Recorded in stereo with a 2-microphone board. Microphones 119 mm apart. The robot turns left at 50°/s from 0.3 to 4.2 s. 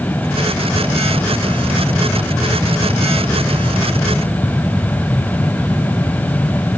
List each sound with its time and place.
Only background noise.